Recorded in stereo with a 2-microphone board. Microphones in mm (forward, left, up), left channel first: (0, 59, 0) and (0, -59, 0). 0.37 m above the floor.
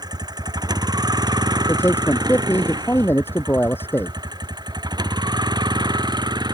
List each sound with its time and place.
0.0 s a vehicle: 35° right (ahead or behind)
1.7 s a man speaking: 20° left (ahead or behind)